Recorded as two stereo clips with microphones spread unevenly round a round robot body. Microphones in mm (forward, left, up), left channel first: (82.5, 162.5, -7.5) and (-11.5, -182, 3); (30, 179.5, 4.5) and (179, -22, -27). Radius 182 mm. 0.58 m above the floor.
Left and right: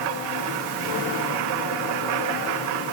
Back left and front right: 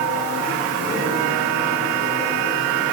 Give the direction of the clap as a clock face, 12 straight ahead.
I don't hear a clap.